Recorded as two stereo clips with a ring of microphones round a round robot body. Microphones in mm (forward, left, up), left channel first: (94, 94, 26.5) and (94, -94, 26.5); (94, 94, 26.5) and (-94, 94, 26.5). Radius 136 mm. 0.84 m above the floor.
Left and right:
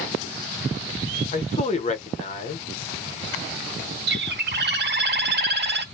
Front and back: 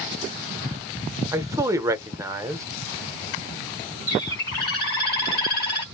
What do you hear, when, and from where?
1.3 s a man speaking: 115° left, 0.8 m
4.1 s a bird: 55° right, 1.4 m